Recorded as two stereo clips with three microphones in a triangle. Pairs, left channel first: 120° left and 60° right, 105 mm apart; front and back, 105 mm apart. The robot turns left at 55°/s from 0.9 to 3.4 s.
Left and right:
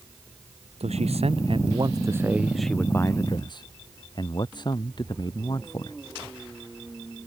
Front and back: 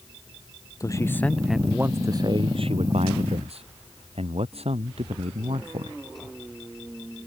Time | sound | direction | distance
0.8 | a man speaking | 60° right | ?